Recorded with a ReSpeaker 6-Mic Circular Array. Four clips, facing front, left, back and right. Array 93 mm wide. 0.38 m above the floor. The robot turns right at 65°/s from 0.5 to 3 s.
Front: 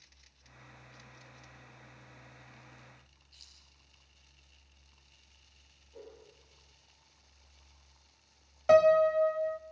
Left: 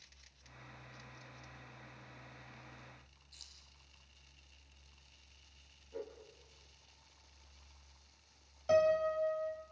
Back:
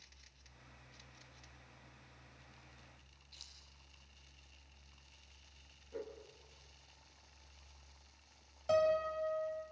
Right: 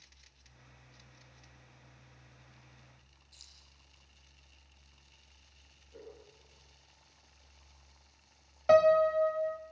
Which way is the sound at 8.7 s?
45° right.